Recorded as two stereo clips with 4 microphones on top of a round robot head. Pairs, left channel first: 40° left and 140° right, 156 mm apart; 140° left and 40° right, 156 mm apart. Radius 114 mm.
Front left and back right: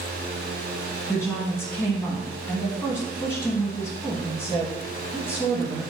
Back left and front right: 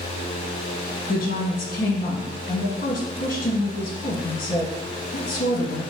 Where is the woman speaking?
110° left, 1.5 m.